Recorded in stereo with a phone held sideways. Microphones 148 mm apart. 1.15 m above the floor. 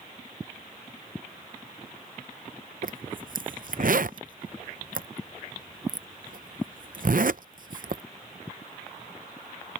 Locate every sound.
2.8 s a zipper: 65° right (ahead or behind)